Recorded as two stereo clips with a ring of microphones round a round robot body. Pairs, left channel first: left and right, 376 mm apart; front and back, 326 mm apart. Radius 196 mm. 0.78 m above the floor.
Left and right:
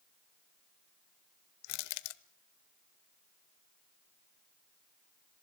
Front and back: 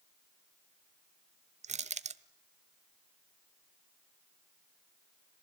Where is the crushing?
110° left, 0.9 m.